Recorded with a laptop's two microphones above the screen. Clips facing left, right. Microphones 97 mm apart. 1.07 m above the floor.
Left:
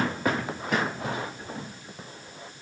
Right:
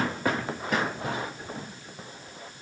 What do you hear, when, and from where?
Only background noise.